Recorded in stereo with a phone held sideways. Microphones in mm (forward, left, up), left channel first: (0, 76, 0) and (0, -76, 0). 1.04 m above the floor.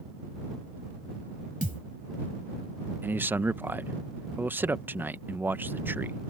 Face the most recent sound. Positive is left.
turn(degrees=-15)  # may be behind; listen again after turning